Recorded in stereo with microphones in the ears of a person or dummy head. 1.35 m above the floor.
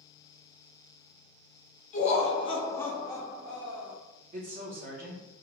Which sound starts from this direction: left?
Laughter, at 1.9 s.